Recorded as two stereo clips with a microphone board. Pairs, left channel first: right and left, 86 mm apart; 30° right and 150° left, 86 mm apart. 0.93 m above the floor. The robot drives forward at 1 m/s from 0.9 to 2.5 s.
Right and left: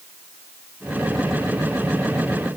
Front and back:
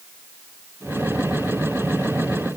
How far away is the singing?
No singing in this recording.